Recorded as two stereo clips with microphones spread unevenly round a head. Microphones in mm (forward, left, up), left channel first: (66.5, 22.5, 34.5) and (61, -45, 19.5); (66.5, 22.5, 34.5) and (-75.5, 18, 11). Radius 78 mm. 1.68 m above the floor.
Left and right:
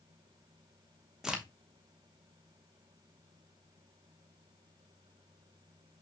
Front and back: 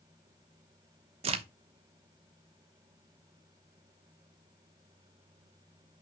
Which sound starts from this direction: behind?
A crack, at 1.2 s.